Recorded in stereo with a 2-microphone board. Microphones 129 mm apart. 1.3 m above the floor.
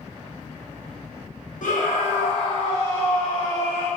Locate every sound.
1.6 s a scream: 80° left, 0.8 m; by 3.9 s 10° left (ahead or behind), 2.0 m